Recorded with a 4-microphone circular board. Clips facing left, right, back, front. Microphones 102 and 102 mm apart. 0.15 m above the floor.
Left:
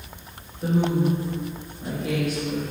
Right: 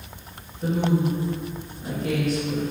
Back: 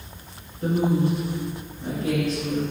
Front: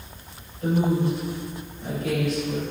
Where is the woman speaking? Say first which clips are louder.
Left 1 dB, back 1 dB; 175° left, 1.8 m.